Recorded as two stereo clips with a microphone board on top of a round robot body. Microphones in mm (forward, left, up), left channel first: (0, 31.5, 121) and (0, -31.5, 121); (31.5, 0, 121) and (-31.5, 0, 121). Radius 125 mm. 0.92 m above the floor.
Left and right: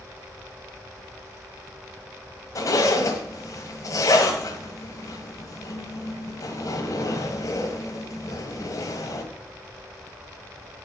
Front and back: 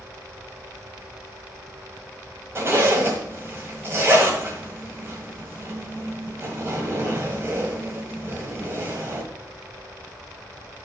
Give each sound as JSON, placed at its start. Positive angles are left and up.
{"t": 2.5, "sound": "a zipper", "azimuth_deg": 125, "distance_m": 1.7}